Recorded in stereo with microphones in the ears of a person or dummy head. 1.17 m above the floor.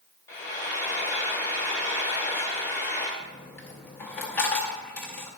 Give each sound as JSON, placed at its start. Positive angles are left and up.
{"t": 0.3, "sound": "frying", "side_deg": 15, "distance_m": 1.2}
{"t": 3.2, "sound": "a dropped coin", "side_deg": 10, "distance_m": 0.6}